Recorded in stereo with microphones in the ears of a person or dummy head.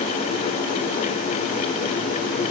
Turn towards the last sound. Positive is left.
No sound to turn to.